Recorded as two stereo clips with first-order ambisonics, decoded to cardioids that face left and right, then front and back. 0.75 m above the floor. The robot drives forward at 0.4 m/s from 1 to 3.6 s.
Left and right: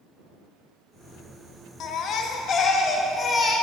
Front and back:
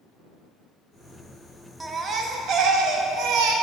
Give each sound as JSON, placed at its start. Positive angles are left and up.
{"t": 1.8, "sound": "a baby crying", "azimuth_deg": 110, "distance_m": 0.6}